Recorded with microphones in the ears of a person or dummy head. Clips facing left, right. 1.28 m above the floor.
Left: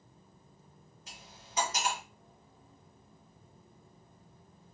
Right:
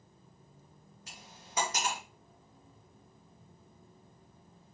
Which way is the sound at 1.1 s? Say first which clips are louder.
Right 1 dB; 55° right (ahead or behind).